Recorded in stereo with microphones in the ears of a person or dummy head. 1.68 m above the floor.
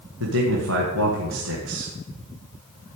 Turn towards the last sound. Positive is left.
turn(degrees=-90)